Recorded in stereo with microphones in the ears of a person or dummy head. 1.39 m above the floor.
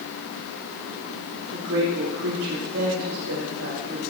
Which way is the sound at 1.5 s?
85° right.